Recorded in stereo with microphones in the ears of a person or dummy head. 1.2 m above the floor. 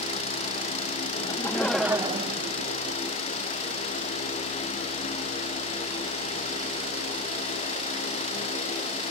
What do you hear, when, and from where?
1.1 s laughter: 25° left (ahead or behind); by 3.0 s 75° right (ahead or behind)